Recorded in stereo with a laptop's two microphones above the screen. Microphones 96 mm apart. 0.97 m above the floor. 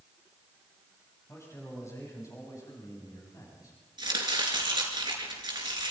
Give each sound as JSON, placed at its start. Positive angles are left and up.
{"t": 1.3, "sound": "a man speaking", "side_deg": 30, "distance_m": 7.0}
{"t": 4.0, "sound": "chopping", "side_deg": -45, "distance_m": 6.0}